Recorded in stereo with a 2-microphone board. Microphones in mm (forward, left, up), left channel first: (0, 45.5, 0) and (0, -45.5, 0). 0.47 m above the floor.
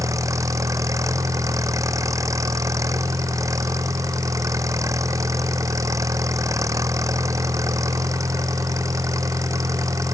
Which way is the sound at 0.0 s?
35° right (ahead or behind).